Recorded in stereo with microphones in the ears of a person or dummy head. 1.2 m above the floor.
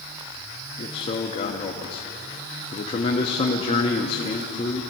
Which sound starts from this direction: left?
A man speaking, at 0.8 s.